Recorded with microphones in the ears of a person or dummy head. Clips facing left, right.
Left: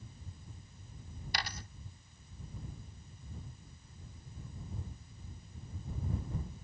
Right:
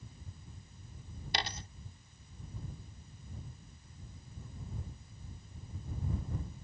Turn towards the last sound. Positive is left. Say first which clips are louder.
# right 3 dB
turn(degrees=-25)  # may be behind; listen again after turning